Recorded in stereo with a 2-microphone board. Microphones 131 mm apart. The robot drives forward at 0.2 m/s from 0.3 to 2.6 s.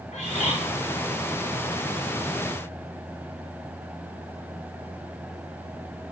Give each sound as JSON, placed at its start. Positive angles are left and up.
{"t": 0.1, "sound": "a bird", "side_deg": 75, "distance_m": 1.6}